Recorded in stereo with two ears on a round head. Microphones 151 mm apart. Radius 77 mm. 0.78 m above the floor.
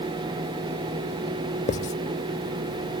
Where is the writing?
45° left (ahead or behind).